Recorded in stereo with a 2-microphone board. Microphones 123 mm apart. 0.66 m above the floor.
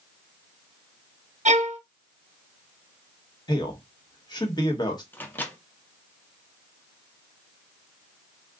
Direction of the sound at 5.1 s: 15° left (ahead or behind).